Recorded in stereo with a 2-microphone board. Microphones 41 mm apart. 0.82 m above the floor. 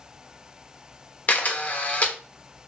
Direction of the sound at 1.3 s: 40° left (ahead or behind).